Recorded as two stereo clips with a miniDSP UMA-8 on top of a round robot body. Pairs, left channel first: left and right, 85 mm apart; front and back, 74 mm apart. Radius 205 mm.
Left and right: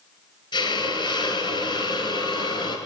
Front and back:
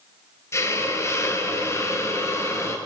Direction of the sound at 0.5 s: 55° left.